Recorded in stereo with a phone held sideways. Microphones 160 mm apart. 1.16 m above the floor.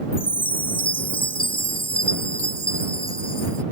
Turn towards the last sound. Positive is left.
turn(degrees=35)  # may be behind; listen again after turning